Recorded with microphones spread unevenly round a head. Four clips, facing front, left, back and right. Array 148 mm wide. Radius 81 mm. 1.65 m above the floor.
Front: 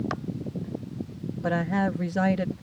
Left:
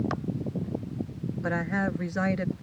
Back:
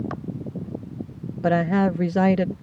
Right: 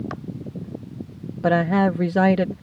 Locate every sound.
1.4 s a woman speaking: 135° right